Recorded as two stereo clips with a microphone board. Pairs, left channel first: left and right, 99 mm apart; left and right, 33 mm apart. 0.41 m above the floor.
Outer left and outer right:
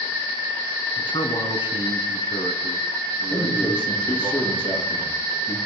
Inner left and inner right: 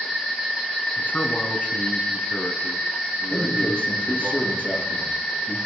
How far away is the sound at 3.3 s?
About 8.5 m.